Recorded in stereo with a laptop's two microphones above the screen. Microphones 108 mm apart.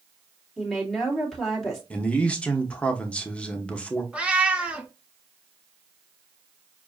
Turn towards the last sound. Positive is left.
turn(degrees=-10)  # may be behind; listen again after turning